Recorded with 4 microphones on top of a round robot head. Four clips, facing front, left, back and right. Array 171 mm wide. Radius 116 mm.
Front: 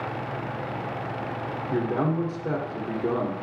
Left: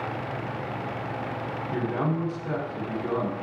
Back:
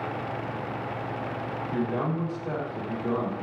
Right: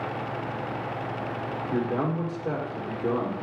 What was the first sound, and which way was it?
A man speaking, 30° right.